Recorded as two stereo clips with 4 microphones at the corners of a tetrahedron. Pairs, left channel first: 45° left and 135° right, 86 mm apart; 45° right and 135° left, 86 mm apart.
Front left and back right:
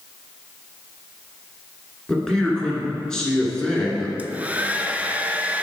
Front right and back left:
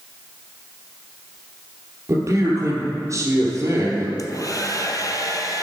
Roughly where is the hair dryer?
Ahead right.